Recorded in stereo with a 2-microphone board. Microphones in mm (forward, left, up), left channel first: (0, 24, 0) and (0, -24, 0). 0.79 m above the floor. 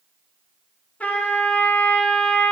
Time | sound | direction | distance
1.0 | a trumpet | 30° left (ahead or behind) | 1.1 m